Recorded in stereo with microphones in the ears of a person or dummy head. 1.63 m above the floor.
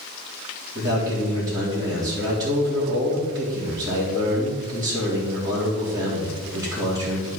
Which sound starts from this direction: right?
A man speaking, at 0.8 s.